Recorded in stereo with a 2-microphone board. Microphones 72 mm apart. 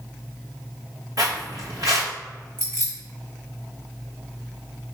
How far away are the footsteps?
About 1.1 m.